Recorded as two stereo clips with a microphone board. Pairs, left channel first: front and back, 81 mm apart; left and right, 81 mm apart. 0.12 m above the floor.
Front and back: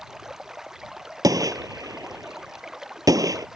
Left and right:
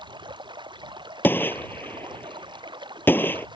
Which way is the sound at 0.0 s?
95° right.